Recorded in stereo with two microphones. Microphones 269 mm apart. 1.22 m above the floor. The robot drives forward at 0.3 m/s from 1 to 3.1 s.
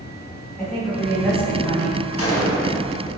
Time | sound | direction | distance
0.6 | a woman speaking | 5° left (ahead or behind) | 1.5 m
2.2 | a gunshot | 55° left (ahead or behind) | 0.7 m